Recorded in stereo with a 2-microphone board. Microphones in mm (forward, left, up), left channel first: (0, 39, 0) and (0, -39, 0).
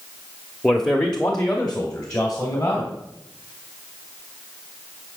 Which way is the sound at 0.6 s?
5° left (ahead or behind).